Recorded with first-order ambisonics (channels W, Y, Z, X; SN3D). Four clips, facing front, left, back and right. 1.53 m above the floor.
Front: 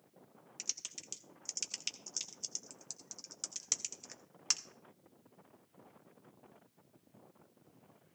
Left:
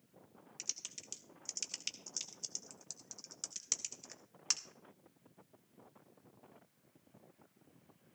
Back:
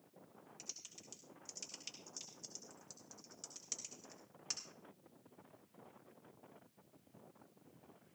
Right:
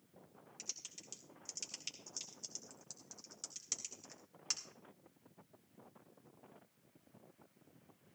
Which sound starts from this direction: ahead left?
Typing on a keyboard, at 0.6 s.